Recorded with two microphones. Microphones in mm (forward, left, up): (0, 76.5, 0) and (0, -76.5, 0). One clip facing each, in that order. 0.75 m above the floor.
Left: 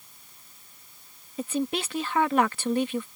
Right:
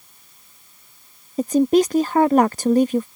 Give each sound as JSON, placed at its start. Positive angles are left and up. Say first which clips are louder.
{"t": 1.4, "sound": "a woman speaking", "louder": "right 13 dB", "side_deg": -40}